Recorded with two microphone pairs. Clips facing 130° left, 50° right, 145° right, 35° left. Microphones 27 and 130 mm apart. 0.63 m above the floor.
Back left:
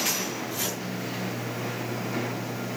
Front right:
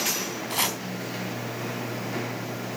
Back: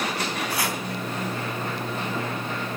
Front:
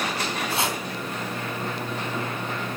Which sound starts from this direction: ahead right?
Chopping, at 0.5 s.